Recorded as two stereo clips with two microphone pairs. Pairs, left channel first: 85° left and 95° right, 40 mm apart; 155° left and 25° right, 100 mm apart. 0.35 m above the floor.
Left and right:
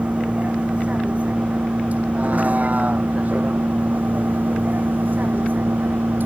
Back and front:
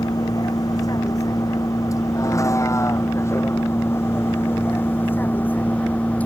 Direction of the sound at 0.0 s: 150° right.